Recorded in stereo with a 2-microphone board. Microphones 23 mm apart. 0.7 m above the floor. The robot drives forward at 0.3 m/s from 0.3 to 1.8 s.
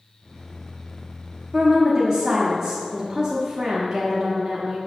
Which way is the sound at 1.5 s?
30° right (ahead or behind).